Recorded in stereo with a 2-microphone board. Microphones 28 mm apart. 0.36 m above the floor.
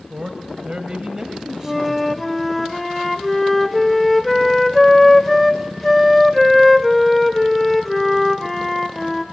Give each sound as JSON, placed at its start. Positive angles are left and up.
{"t": 0.1, "sound": "a man speaking", "side_deg": -45, "distance_m": 1.5}
{"t": 1.6, "sound": "a flute", "side_deg": 5, "distance_m": 0.8}